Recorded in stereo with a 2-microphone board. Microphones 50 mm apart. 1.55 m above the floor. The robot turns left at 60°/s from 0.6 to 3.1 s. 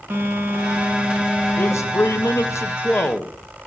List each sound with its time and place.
0.1 s a phone buzzing: 135° right, 2 m; by 2.6 s 110° left, 2 m
1.6 s a man speaking: 130° left, 0.9 m; by 3.3 s 35° left, 0.9 m